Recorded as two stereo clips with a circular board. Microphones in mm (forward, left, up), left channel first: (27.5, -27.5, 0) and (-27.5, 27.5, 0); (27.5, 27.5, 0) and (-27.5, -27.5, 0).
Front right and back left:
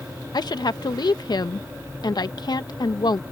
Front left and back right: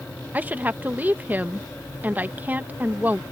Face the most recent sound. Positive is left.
turn(degrees=-70)